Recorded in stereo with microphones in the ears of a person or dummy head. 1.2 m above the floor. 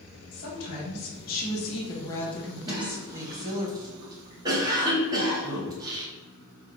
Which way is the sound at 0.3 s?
65° left (ahead or behind).